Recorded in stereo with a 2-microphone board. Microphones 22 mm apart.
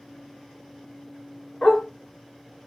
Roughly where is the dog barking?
Left.